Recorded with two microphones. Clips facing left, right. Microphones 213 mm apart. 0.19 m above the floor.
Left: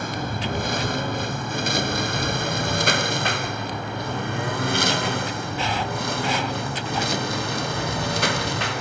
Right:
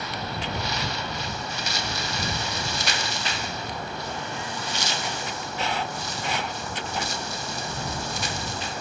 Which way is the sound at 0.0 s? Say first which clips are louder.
Left 4 dB; 50° left (ahead or behind).